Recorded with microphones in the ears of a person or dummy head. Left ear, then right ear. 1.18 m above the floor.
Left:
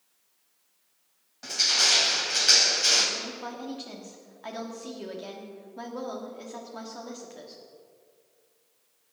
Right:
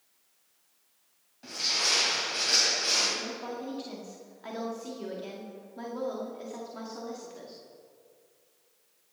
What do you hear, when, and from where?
1.4 s crushing: 40° left (ahead or behind), 2.5 m
3.1 s a woman speaking: 20° left (ahead or behind), 2.0 m